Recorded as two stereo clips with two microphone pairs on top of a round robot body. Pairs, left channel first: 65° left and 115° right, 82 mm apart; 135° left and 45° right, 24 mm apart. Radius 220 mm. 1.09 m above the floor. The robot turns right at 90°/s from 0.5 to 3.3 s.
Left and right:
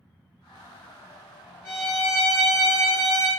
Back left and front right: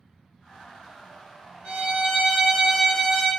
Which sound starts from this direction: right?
A violin, at 1.6 s.